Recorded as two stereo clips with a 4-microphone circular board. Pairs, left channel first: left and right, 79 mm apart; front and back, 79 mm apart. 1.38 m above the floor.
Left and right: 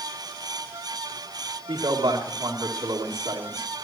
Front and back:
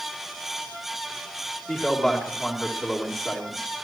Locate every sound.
1.7 s a man speaking: 85° right, 3 m